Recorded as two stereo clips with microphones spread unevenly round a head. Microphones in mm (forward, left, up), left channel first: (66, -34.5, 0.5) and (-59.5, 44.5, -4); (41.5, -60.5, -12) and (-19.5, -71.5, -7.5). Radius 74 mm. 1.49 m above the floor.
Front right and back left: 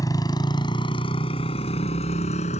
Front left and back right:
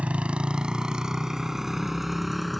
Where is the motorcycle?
100° right; by 2.6 s 80° right.